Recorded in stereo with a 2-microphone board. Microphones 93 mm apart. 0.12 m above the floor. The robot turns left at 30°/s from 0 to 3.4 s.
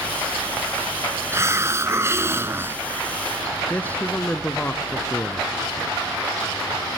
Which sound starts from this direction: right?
A hiss, at 1.3 s.